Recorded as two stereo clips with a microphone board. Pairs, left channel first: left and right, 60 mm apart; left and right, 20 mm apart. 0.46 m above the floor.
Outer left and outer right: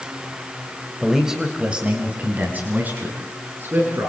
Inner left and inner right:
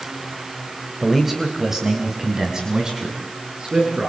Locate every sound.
1.0 s a man speaking: 5° right (ahead or behind), 2.5 m; by 4.1 s 35° right (ahead or behind), 6.5 m